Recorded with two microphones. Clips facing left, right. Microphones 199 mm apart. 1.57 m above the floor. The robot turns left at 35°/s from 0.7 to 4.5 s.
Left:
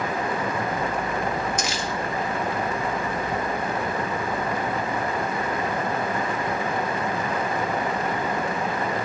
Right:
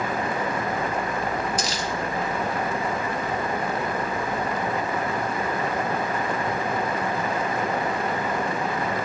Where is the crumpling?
35° right (ahead or behind), 2 m; by 1.9 s 45° right (ahead or behind), 2 m.